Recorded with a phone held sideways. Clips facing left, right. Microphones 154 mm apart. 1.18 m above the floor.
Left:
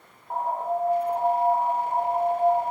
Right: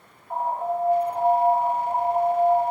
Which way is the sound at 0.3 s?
35° left (ahead or behind).